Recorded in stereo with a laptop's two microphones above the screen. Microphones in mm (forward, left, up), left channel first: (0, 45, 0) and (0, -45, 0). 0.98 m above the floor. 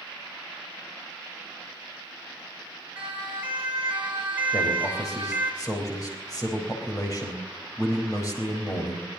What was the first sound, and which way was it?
A siren, 20° right (ahead or behind).